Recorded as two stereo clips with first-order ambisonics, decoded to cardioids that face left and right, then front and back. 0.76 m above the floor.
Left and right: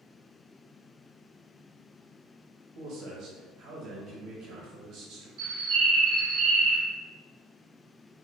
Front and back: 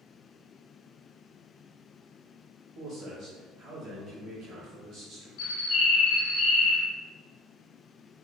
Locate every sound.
2.8 s a man speaking: 130° right, 0.6 m
5.4 s a bird: 45° right, 1.0 m